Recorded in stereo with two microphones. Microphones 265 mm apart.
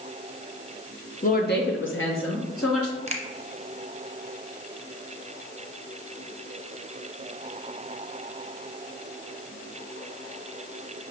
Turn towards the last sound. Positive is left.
turn(degrees=-25)  # may be behind; listen again after turning